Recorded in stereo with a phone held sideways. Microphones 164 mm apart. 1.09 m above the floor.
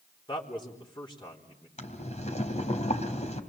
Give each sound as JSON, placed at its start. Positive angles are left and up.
{"t": 0.3, "sound": "a man speaking", "side_deg": 30, "distance_m": 3.5}
{"t": 1.8, "sound": "boiling", "side_deg": 45, "distance_m": 3.0}